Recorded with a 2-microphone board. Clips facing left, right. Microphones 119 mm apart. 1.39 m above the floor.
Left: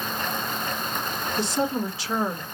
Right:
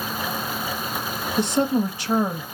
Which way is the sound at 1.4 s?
50° right (ahead or behind).